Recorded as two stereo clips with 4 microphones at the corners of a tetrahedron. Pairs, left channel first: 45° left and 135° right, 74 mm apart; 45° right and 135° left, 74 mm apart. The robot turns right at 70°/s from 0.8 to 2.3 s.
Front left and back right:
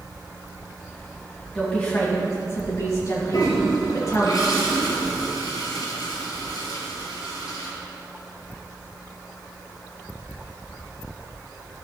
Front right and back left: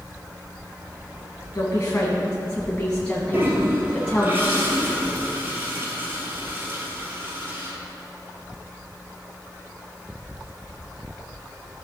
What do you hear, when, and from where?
1.6 s a woman speaking: 30° right, 1.7 m; by 4.3 s 25° left, 1.7 m
3.3 s a toilet flushing: 75° left, 2 m